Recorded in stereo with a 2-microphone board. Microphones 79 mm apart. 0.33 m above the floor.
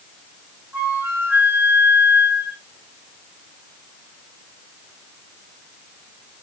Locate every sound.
0.7 s a flute: 25° right (ahead or behind), 1.8 m